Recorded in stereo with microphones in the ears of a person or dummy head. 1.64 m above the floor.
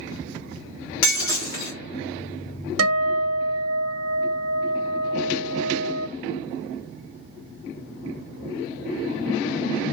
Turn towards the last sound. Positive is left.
turn(degrees=-85)